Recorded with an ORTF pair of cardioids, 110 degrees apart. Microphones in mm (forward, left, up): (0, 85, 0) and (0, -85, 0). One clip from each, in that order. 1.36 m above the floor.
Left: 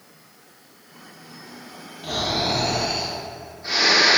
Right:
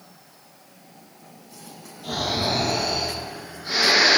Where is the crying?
No crying in this recording.